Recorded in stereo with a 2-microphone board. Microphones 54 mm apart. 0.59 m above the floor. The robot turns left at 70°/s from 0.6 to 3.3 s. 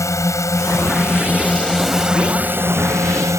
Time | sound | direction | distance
0.0 | a drone | 90° left | ?